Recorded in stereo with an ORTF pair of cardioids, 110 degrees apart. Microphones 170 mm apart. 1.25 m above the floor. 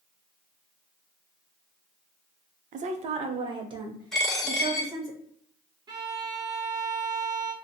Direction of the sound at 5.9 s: 25° right.